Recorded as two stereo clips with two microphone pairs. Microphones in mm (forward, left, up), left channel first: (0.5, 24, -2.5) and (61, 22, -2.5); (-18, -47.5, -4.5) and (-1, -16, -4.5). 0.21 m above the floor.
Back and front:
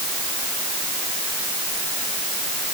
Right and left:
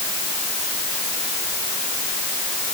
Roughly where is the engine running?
No engine running in this recording.